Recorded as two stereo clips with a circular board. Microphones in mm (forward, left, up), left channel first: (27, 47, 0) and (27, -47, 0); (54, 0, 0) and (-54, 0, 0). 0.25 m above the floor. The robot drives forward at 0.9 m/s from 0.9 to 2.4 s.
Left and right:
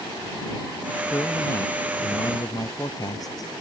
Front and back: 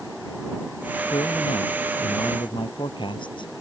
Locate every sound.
1.1 s a man speaking: 35° left; by 3.5 s 40° left